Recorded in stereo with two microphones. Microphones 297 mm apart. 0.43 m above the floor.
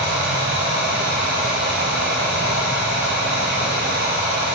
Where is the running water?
35° right (ahead or behind), 6.5 m.